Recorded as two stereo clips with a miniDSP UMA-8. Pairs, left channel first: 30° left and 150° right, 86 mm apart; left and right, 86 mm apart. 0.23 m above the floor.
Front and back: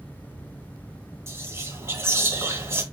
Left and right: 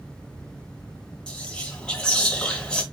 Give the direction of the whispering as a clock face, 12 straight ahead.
6 o'clock.